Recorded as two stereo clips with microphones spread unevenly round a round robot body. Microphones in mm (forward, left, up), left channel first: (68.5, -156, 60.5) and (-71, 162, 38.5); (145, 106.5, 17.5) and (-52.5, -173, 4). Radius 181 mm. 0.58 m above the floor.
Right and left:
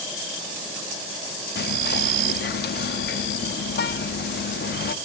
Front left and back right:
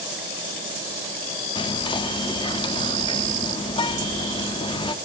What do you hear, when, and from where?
1.6 s whispering: 15° right, 0.7 m